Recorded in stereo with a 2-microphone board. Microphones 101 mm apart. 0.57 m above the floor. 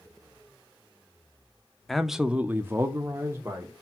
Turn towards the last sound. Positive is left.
turn(degrees=-25)  # may be behind; listen again after turning